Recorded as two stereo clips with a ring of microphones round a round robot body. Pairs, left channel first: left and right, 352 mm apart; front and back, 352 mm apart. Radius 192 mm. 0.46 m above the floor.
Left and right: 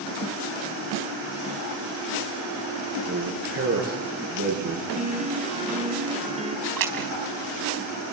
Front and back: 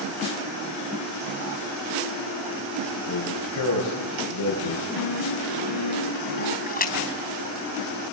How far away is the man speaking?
About 7.5 m.